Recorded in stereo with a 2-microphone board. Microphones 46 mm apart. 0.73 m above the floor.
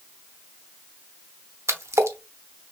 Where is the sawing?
No sawing in this recording.